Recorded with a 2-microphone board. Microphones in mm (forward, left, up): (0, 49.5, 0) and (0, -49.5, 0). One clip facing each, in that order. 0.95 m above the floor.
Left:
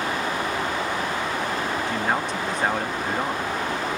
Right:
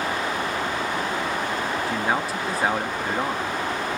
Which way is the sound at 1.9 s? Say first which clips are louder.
Even; 5° right (ahead or behind).